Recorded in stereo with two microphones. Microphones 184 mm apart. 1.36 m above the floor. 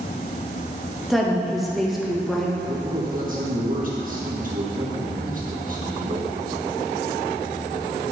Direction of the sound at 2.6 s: 50° right (ahead or behind).